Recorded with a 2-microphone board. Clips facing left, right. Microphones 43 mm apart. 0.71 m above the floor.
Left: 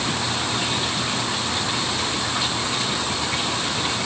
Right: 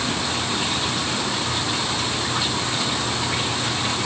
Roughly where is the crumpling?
No crumpling in this recording.